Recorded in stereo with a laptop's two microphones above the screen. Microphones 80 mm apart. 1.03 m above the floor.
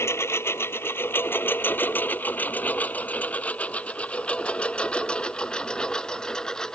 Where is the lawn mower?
30° left (ahead or behind); by 6.8 s 10° left (ahead or behind).